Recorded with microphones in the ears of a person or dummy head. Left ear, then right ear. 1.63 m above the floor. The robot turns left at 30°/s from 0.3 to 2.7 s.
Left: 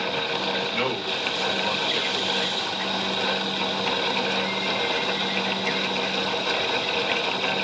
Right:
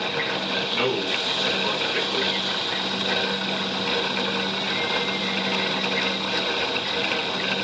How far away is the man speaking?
About 5.5 m.